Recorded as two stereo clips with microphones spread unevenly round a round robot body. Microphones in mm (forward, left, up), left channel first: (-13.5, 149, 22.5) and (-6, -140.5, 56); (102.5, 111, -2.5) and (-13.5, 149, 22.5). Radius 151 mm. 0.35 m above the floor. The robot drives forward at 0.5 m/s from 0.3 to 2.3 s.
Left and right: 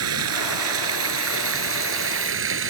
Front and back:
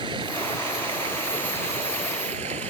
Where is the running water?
125° right; by 2.7 s 135° right.